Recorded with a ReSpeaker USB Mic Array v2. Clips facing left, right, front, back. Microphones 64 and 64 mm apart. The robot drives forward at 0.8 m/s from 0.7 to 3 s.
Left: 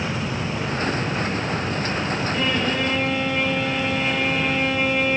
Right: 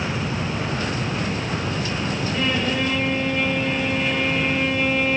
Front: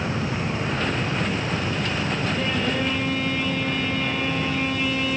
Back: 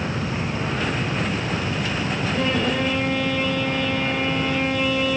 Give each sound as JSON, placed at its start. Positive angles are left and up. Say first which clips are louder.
{"t": 2.3, "sound": "a violin", "louder": "right 1 dB, back 6 dB", "azimuth_deg": 175, "distance_m": 1.8}